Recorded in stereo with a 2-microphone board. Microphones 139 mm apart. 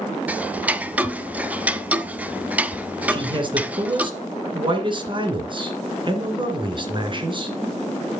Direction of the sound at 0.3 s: 10° right (ahead or behind).